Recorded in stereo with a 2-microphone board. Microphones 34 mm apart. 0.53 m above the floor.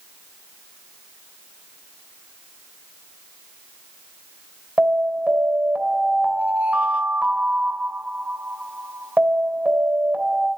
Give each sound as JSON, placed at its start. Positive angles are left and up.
{"t": 4.8, "sound": "an alarm", "side_deg": -40, "distance_m": 3.5}